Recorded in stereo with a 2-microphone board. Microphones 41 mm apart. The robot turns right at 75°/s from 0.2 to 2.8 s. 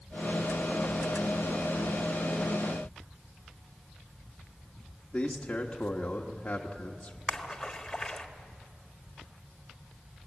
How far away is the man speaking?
About 1.4 m.